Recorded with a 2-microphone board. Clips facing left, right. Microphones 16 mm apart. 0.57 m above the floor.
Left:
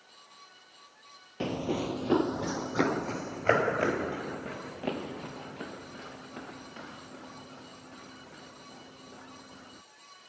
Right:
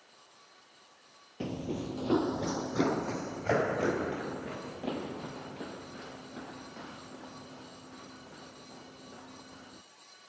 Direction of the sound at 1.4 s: 35° left (ahead or behind).